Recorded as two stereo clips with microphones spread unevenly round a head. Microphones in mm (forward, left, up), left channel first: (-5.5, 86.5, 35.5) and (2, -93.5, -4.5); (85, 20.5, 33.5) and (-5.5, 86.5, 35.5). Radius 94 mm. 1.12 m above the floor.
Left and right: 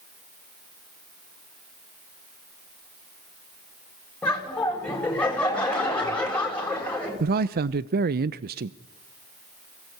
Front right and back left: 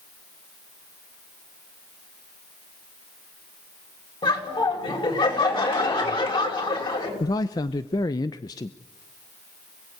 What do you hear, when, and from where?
4.2 s laughter: 5° left, 7 m
7.2 s a man speaking: 95° right, 0.6 m